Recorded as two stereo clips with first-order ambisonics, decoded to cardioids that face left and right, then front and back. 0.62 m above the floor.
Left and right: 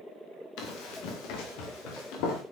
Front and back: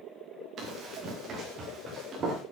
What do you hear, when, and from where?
0.6 s running footsteps: 120° left, 5.5 m; by 2.4 s 115° left, 6 m